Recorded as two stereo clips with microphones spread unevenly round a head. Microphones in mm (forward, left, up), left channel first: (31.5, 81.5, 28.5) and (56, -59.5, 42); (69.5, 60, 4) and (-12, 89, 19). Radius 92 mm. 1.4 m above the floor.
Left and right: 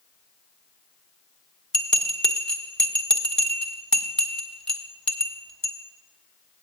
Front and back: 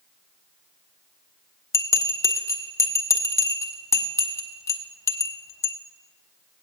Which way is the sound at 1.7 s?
10° left.